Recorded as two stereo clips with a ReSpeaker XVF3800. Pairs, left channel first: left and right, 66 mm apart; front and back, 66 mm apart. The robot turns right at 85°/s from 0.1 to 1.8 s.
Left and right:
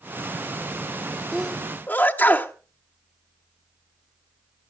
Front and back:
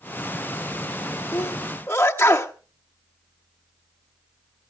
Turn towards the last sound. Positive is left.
turn(degrees=45)